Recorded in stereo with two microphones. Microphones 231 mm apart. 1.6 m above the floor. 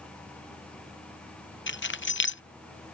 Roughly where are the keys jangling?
Left.